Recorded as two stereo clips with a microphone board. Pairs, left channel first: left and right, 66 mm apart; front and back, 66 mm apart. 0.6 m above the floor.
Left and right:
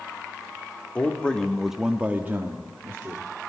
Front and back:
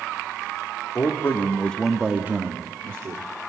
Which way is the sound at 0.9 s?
25° left.